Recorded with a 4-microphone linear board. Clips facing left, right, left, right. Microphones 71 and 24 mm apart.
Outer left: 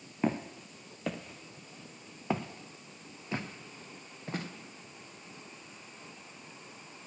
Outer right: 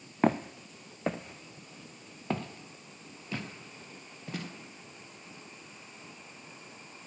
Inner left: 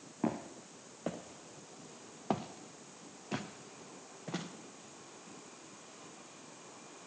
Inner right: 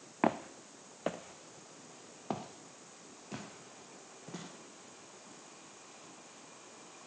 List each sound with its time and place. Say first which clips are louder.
0.2 s footsteps: outer right 5 dB, inner right 5 dB; 70° right (ahead or behind), 0.9 m; by 4.5 s 35° left (ahead or behind), 2.5 m